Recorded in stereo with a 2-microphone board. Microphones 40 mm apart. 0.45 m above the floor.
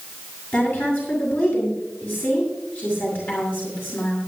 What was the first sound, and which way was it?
A woman speaking, 55° left (ahead or behind).